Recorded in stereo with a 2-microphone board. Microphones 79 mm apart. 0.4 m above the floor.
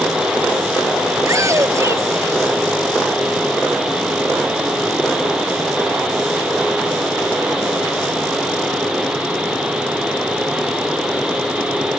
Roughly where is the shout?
Right.